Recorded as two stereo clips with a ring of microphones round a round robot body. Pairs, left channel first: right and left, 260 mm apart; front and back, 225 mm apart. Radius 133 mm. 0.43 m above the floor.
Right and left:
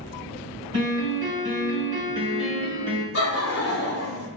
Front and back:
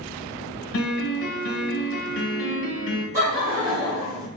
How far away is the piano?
About 1.3 m.